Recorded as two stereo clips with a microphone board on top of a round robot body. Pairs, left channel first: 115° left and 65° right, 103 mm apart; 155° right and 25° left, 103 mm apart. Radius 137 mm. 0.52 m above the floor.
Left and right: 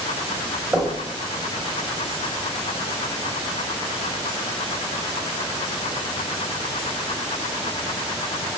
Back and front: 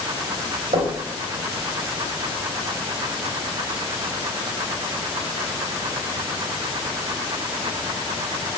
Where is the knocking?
5° left, 3 m.